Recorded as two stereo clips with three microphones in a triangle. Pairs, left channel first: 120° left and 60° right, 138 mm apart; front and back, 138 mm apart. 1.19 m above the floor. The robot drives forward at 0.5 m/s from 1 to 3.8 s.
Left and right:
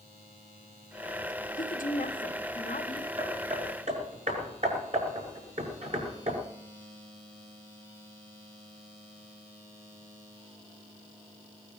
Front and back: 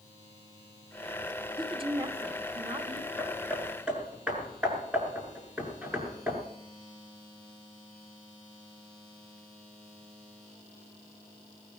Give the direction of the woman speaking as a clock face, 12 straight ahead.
8 o'clock.